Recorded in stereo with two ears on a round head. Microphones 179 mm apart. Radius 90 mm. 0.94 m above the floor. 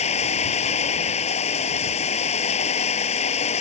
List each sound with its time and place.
0.0 s running water: 35° left (ahead or behind)